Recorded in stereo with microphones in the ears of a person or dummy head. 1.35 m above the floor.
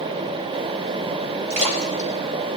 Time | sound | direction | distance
1.5 | a splash | 80° right | 3 m